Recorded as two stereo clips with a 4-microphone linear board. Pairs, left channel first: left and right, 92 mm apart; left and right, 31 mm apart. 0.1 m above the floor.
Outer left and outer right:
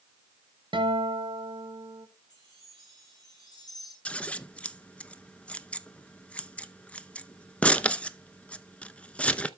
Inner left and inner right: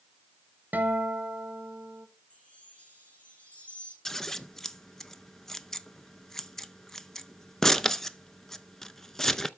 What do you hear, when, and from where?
0.7 s a guitar: 60° right (ahead or behind), 2.5 m
2.3 s a chime: 50° left (ahead or behind), 7.5 m
4.0 s scissors: 15° left (ahead or behind), 0.6 m